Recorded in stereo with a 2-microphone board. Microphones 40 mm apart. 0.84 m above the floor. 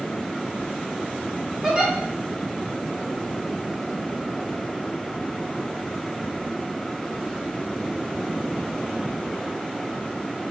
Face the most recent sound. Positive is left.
turn(degrees=-20)  # may be behind; listen again after turning